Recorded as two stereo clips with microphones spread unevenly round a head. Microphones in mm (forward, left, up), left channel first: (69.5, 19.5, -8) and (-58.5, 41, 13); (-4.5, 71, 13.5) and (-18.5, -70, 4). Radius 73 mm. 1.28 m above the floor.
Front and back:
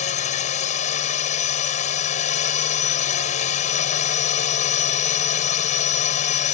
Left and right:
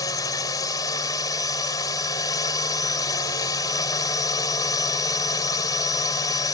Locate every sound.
0.0 s a drone: 20° left